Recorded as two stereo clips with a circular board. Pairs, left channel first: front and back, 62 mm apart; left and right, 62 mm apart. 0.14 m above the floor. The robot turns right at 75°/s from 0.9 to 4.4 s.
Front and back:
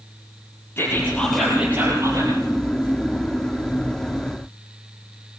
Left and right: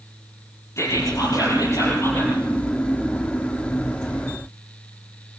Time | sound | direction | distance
0.8 | whispering | 50° left | 5 m